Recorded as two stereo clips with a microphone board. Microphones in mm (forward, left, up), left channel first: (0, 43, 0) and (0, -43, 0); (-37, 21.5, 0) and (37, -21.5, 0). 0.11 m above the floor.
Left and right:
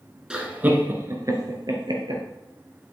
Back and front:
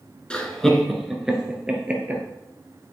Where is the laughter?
155° right, 1.4 m; by 2.2 s 100° right, 2.5 m.